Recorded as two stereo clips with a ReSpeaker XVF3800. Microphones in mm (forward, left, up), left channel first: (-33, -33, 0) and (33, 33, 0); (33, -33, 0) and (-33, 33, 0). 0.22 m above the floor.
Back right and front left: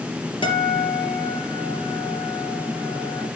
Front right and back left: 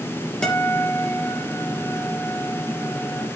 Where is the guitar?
125° right, 5 m.